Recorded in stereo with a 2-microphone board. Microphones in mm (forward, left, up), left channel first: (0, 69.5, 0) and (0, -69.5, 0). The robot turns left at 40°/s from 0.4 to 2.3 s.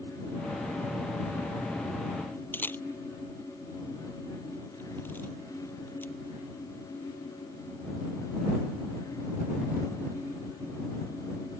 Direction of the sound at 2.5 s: 15° left (ahead or behind).